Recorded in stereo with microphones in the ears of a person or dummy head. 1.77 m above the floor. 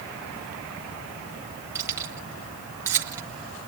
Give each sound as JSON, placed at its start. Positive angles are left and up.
{"t": 1.8, "sound": "keys jangling", "side_deg": -15, "distance_m": 1.4}